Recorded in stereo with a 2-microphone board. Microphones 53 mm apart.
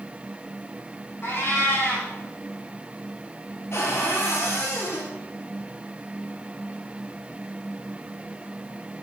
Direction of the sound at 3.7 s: 55° left (ahead or behind).